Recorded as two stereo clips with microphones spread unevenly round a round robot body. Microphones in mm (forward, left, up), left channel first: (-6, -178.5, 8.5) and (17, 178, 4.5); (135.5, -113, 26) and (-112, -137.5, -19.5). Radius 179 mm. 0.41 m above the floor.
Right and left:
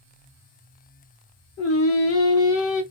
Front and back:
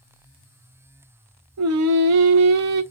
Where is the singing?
150° right, 0.7 m.